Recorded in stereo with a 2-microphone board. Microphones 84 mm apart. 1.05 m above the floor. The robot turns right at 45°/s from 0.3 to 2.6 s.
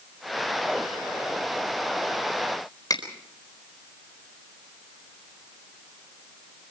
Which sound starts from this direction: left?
A finger snap, at 2.9 s.